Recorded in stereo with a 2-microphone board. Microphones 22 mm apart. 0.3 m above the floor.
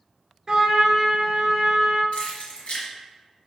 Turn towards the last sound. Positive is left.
turn(degrees=75)  # may be behind; listen again after turning